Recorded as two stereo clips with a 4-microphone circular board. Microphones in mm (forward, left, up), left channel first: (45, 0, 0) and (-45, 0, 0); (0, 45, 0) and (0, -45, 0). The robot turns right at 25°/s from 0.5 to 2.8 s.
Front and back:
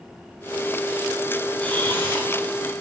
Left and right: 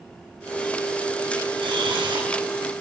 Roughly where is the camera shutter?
Right.